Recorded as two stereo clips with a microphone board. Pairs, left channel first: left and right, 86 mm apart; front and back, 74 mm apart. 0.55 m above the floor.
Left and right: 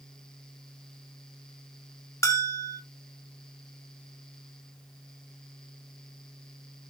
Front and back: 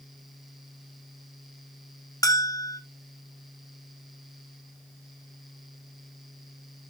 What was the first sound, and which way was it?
A bell, 40° left.